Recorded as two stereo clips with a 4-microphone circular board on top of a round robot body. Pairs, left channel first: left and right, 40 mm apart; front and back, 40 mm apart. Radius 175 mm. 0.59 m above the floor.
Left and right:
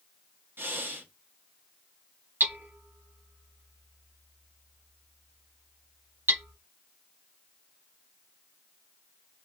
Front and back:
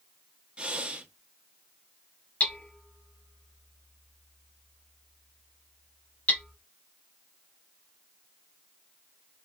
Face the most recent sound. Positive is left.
turn(degrees=-55)